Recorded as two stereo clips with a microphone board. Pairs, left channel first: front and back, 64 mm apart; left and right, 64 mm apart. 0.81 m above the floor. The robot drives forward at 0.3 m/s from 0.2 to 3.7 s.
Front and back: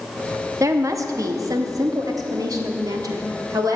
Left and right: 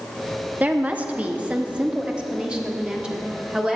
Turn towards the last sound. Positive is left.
turn(degrees=-170)